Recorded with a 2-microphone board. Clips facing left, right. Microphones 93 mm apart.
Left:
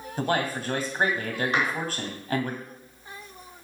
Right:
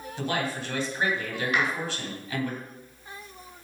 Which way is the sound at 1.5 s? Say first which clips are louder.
Right 1 dB; 35° left (ahead or behind).